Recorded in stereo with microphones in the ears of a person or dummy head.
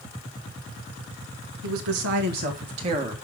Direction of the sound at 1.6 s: 75° right (ahead or behind).